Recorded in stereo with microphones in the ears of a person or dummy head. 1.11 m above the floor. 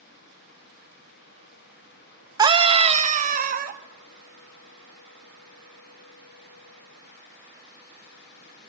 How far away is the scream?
About 0.9 m.